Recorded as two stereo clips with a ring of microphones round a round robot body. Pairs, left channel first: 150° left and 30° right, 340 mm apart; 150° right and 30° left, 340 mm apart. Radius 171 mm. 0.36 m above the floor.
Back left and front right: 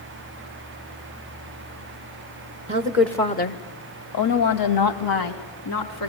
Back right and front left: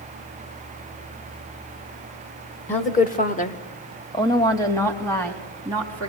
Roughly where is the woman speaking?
Right.